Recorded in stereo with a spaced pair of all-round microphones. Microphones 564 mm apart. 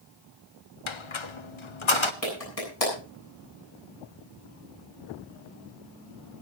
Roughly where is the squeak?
Left.